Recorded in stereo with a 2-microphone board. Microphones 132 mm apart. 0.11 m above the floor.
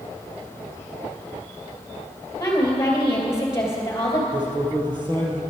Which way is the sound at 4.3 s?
35° right (ahead or behind).